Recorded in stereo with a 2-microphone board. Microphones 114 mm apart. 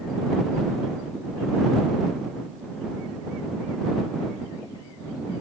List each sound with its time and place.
Only background noise.